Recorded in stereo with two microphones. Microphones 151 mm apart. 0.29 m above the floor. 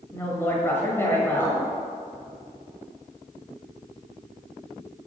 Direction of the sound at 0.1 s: 15° left (ahead or behind).